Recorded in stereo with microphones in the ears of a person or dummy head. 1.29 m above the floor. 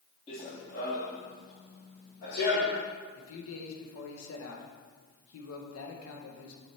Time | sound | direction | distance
0.3 | running footsteps | 35° left (ahead or behind) | 1.9 m
3.1 | a man speaking | 75° left (ahead or behind) | 1.3 m